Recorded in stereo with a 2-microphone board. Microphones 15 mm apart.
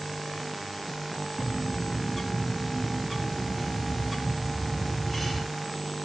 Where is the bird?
5° right (ahead or behind), 2.5 m.